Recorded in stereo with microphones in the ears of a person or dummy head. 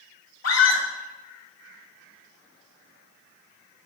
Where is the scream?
90° left, 2.5 m.